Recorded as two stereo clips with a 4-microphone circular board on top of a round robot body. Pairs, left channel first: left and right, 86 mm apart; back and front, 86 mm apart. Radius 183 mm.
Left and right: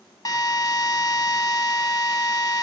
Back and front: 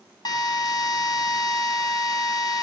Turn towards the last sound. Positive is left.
turn(degrees=140)